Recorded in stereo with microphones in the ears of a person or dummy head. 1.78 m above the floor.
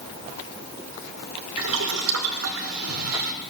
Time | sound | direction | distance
1.6 | boiling | 75° right (ahead or behind) | 2.0 m